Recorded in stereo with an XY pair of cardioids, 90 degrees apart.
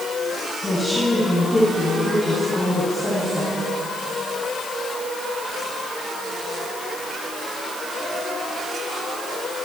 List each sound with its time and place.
0.6 s a woman speaking: 25° left, 9.5 m